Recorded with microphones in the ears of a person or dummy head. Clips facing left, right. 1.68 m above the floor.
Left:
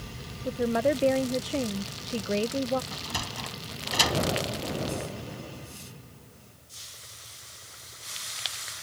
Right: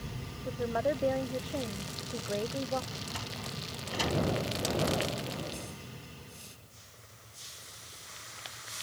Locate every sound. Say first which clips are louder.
0.5 s a woman speaking: left 6 dB; 35° left (ahead or behind)
2.9 s a sliding door: left 4 dB; 85° left